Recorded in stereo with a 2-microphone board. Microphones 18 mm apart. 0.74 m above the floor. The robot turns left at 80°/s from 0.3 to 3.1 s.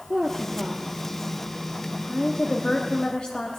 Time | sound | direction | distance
0.1 | a woman speaking | 55° right (ahead or behind) | 1.0 m